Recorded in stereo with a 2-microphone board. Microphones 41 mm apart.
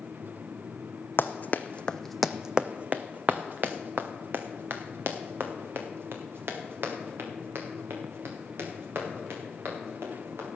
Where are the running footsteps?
60° left (ahead or behind), 0.7 m; by 10.5 s 70° right (ahead or behind), 5 m.